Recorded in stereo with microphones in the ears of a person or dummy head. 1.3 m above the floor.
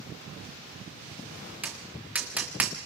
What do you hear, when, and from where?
1.6 s tapping: 5° right (ahead or behind), 1.3 m